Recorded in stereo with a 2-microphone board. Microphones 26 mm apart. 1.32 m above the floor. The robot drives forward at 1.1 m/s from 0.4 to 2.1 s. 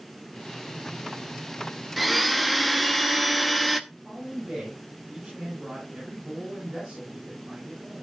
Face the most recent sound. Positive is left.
turn(degrees=-50)  # may be behind; listen again after turning